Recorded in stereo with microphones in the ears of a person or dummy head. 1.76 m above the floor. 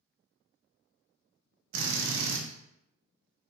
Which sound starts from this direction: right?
A drill, at 1.7 s.